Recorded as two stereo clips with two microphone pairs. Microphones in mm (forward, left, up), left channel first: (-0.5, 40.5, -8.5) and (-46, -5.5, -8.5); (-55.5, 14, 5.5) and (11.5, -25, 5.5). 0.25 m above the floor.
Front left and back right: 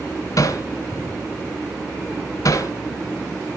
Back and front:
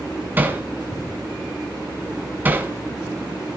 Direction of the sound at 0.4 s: 35° left.